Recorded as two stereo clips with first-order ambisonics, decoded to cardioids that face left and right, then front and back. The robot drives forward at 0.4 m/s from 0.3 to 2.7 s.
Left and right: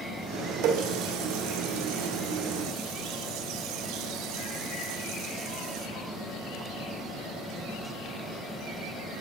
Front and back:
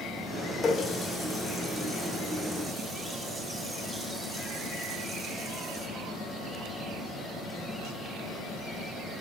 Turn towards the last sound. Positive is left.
turn(degrees=-110)